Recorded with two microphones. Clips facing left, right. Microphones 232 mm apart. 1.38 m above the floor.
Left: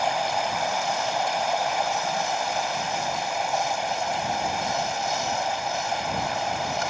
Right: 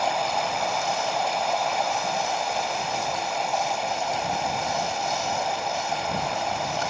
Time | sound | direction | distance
0.0 | running water | centre (ahead or behind) | ?